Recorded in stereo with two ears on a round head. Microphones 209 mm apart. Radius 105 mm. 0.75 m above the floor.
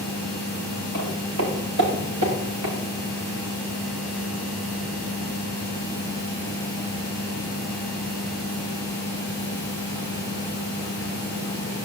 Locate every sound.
0.9 s footsteps: 60° right (ahead or behind), 6.5 m; by 2.8 s 75° right (ahead or behind), 5.5 m